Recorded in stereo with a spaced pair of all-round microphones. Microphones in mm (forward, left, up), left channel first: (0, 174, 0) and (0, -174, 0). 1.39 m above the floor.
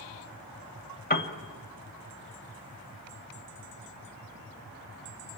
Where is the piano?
25° left (ahead or behind), 1.7 m.